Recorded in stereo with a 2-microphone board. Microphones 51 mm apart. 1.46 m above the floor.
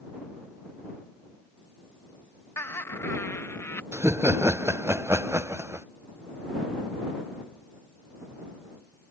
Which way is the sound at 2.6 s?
80° left.